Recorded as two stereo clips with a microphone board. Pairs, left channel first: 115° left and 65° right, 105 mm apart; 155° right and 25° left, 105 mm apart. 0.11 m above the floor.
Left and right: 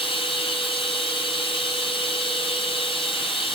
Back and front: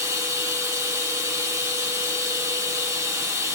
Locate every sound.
0.0 s running water: 85° left, 1.8 m